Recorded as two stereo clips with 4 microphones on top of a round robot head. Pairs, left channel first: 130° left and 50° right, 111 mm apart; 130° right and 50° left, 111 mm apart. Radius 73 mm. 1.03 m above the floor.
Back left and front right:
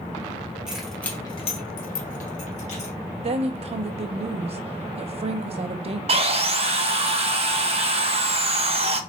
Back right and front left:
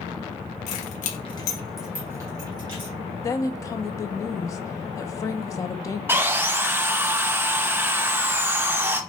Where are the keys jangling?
135° right, 1.2 m; by 2.9 s 100° left, 2 m.